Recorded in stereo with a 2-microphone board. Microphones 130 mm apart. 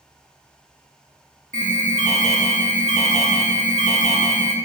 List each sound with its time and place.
1.5 s an alarm: 75° right (ahead or behind), 1.8 m